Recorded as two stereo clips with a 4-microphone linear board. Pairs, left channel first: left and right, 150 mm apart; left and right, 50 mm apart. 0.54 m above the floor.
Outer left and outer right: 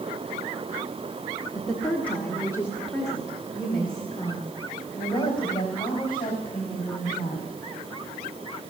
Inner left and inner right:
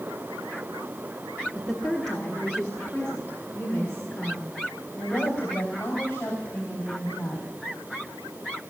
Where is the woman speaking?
Centre (ahead or behind), 1.2 m; by 7.5 s 35° left (ahead or behind), 4.5 m.